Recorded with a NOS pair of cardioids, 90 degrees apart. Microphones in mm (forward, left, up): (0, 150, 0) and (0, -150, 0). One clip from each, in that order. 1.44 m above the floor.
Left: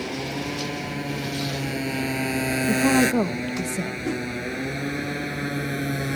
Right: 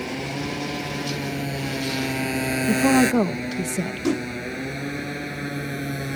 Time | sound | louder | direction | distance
0.0 | a motorcycle | even | 5° right | ?
2.7 | a woman speaking | right 2 dB | 15° right | ?
4.0 | a whoosh | right 6 dB | 40° right | ?